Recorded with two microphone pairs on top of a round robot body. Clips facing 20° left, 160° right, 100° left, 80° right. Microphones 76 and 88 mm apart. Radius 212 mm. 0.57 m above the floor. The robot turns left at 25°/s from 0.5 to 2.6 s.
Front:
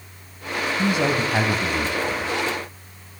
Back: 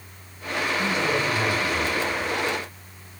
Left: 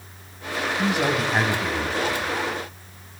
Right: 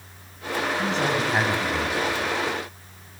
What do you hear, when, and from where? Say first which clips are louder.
0.8 s a man speaking: front 5 dB, left 4 dB; 25° left, 5.5 m; by 2.3 s 15° right, 5.5 m